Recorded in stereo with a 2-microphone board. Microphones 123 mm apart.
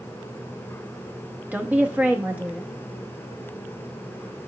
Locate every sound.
1.5 s a woman speaking: 15° right (ahead or behind), 1.1 m